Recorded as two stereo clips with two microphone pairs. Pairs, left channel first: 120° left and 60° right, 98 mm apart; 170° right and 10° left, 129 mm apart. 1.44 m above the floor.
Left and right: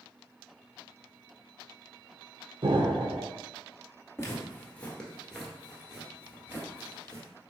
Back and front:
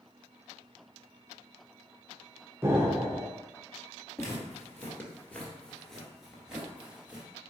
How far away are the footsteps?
About 1.6 m.